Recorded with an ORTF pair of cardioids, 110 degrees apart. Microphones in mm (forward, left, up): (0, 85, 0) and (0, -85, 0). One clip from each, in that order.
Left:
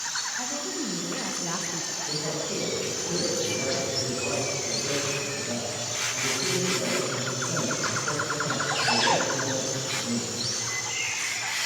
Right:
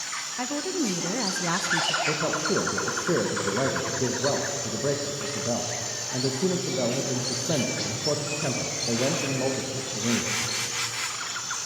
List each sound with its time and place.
0.4 s a woman speaking: 40° right, 1.4 m; by 2.0 s 20° right, 0.5 m
2.1 s a man speaking: 70° right, 1.7 m